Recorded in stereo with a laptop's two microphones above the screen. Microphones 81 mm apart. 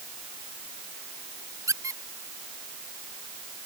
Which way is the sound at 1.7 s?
40° right (ahead or behind).